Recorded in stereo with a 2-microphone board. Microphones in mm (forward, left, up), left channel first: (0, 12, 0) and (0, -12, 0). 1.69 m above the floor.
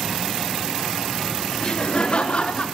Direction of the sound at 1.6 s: 45° left (ahead or behind).